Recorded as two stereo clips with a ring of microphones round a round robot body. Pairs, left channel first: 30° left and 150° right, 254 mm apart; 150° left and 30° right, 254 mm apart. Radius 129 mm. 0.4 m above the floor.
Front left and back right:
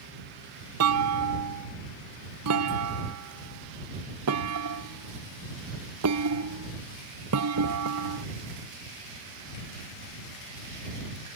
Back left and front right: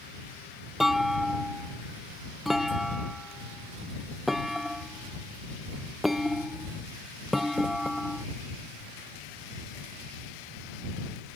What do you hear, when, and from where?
0.8 s a clunk: 120° right